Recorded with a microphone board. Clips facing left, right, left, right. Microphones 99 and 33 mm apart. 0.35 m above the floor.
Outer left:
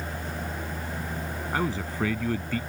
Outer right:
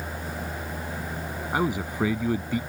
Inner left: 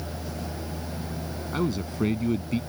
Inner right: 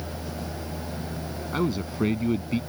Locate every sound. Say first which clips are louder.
1.5 s a man speaking: outer right 3 dB, inner right 1 dB; 15° right (ahead or behind)